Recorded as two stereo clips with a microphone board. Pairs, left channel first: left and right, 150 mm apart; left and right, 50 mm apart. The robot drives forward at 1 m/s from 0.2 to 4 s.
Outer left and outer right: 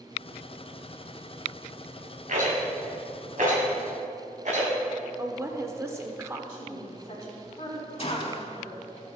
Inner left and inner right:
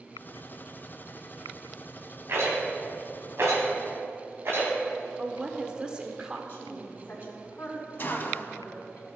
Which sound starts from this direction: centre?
A woman speaking, at 5.2 s.